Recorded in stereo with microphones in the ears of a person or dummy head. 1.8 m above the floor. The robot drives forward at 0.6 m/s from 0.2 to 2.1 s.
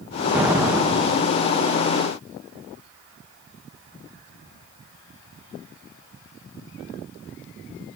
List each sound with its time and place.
0.3 s an explosion: 10° right (ahead or behind), 0.9 m; by 1.4 s 5° right (ahead or behind), 1.4 m